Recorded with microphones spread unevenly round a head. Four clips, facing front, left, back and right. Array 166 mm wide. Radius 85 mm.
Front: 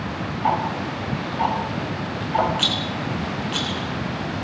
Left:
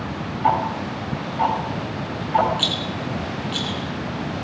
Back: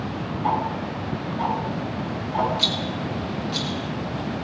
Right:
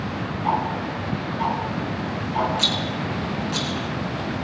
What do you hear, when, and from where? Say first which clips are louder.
0.4 s ticking: left 4 dB, front 2 dB; 40° left, 6 m
2.6 s a rattle: right 1 dB, front 1 dB; 20° right, 4.5 m